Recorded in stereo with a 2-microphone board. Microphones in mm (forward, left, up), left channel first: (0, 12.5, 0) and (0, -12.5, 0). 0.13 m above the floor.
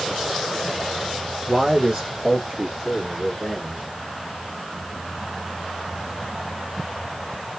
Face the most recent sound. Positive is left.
turn(degrees=-15)  # may be behind; listen again after turning